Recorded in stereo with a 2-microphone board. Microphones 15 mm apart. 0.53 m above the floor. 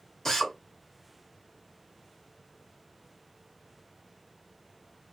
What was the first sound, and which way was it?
A drill, 30° left (ahead or behind).